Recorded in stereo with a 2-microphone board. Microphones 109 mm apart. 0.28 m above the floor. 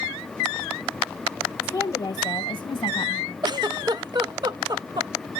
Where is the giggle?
45° right (ahead or behind), 0.5 m.